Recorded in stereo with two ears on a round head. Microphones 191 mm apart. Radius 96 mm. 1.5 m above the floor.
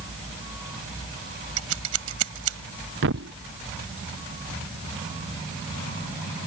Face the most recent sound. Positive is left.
turn(degrees=-60)  # may be behind; listen again after turning